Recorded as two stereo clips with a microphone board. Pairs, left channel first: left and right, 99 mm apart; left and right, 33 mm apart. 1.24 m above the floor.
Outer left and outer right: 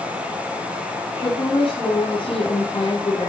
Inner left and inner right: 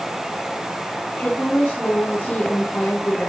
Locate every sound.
1.2 s a woman speaking: 60° left (ahead or behind), 8.5 m